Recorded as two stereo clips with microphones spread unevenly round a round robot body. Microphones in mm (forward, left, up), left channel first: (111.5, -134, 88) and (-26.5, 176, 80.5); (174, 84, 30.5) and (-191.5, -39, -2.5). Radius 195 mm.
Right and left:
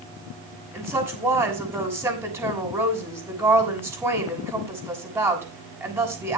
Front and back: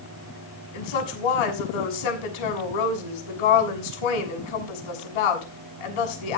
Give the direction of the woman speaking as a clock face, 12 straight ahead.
11 o'clock.